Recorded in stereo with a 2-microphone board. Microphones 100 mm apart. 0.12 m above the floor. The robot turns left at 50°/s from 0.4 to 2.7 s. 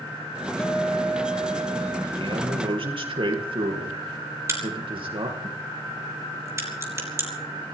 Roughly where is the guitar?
Ahead.